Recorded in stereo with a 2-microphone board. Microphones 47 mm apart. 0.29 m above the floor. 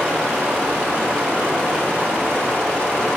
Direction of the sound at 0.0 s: 15° right (ahead or behind).